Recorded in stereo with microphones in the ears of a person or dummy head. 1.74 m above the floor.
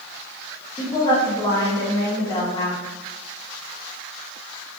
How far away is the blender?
No blender in this recording.